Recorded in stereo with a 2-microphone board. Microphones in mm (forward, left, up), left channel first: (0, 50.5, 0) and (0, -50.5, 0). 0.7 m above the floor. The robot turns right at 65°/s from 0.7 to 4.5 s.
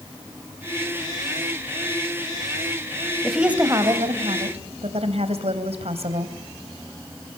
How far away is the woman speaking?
About 3.5 m.